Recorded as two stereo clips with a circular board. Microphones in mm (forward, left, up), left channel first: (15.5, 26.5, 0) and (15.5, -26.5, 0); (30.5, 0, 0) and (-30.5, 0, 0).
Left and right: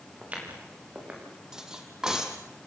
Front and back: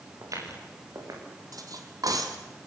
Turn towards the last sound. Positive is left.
turn(degrees=-165)